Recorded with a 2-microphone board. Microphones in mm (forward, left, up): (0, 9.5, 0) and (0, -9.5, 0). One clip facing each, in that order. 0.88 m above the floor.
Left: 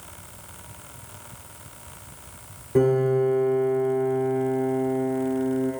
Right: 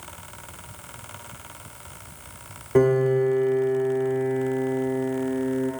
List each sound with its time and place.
2.8 s a piano: 50° right (ahead or behind), 0.7 m